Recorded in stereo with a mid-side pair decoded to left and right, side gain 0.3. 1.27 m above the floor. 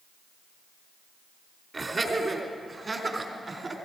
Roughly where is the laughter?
Ahead right.